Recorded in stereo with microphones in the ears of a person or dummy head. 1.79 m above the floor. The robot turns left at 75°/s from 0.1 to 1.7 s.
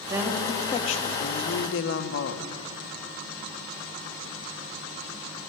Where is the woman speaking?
165° right, 1.5 m; by 2.5 s 75° left, 1.5 m.